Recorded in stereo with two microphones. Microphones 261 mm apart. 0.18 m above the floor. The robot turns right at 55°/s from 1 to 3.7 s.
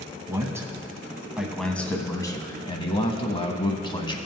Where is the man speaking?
10° right (ahead or behind), 1.0 m; by 4.2 s 20° left (ahead or behind), 1.0 m.